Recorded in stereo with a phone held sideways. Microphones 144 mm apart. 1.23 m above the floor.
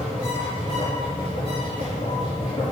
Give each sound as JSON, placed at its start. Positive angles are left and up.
{"t": 0.0, "sound": "a machine running", "side_deg": 40, "distance_m": 4.0}